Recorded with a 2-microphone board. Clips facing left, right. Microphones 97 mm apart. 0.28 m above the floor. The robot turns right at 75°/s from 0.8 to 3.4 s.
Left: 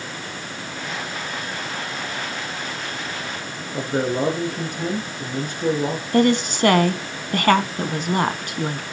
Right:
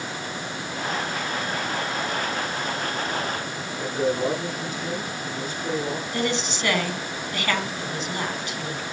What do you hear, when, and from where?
3.7 s a man speaking: 65° left (ahead or behind), 5 m
6.1 s a woman speaking: 50° left (ahead or behind), 2.5 m